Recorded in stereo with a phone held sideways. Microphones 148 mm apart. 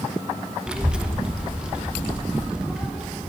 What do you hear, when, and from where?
0.7 s a child speaking: 5° right (ahead or behind), 0.7 m